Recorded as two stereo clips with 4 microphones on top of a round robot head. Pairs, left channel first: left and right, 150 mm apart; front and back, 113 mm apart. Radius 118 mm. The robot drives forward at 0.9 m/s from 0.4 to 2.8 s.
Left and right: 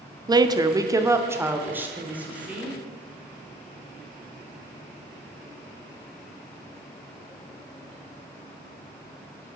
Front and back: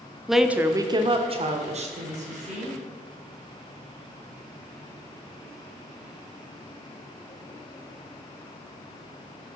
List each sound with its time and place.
0.3 s a woman speaking: 95° right, 0.7 m; by 2.8 s 175° right, 2.5 m